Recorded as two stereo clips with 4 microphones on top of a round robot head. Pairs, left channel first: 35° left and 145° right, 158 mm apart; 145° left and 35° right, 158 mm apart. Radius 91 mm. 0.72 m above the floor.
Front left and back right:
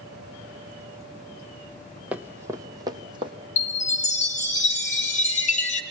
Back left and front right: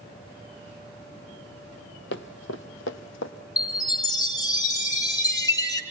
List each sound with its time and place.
2.1 s running footsteps: 130° left, 1.7 m; by 3.3 s 150° left, 2.5 m
3.6 s a chime: 80° left, 3.5 m